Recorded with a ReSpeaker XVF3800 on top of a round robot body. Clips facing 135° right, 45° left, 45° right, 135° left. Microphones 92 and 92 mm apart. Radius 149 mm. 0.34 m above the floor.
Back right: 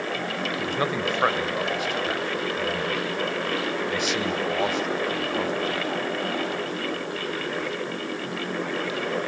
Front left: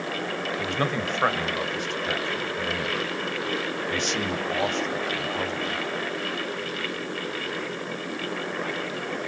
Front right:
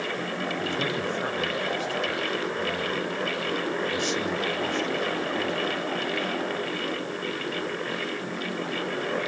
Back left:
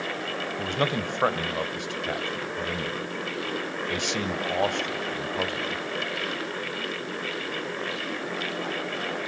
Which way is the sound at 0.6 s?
140° left.